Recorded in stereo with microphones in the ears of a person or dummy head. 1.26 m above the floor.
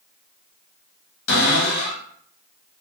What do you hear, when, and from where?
1.3 s a cupboard door: 80° left, 1.7 m